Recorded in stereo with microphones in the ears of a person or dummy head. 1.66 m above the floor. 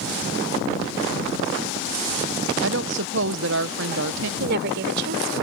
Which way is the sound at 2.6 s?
65° right (ahead or behind).